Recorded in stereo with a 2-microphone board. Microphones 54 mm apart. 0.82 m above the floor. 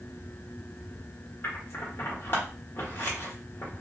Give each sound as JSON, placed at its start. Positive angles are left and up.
{"t": 1.4, "sound": "scissors", "side_deg": 45, "distance_m": 1.2}